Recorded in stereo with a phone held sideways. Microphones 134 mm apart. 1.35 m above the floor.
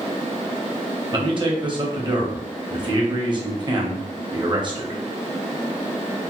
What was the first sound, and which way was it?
A man speaking, 35° right (ahead or behind).